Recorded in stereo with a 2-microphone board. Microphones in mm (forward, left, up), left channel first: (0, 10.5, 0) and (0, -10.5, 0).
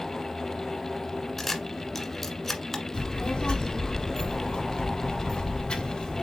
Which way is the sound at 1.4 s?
20° left (ahead or behind).